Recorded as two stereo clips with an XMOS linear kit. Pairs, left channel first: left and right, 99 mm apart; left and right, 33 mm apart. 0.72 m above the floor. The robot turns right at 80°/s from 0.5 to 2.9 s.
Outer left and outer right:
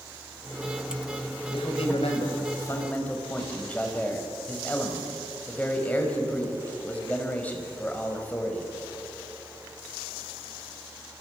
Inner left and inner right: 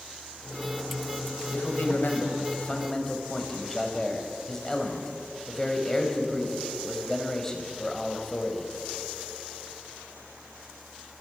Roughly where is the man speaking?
Ahead left.